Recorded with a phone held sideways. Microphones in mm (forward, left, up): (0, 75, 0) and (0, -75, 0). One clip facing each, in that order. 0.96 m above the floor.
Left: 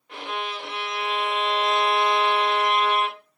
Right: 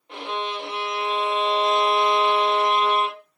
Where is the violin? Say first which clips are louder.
Right 3 dB; 25° right (ahead or behind), 0.8 m.